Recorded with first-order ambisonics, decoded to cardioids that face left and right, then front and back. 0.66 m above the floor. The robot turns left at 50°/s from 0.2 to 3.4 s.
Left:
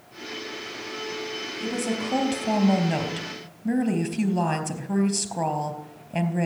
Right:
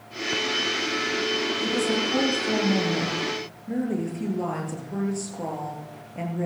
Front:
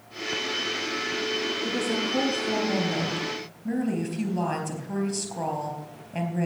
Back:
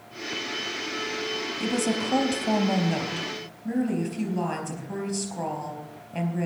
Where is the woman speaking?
175° left, 4 m; by 6.5 s 85° left, 4 m.